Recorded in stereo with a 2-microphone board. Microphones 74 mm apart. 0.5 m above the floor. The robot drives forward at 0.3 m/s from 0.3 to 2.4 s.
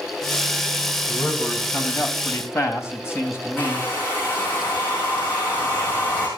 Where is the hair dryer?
30° left (ahead or behind), 9.5 m.